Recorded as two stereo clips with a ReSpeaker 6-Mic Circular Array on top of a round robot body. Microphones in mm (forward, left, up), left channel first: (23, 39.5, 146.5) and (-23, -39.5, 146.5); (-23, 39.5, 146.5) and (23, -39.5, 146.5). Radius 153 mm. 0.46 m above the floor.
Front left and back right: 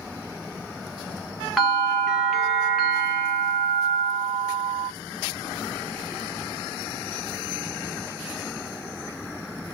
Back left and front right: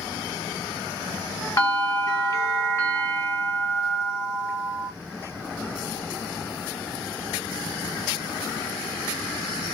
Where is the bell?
150° left, 1.2 m.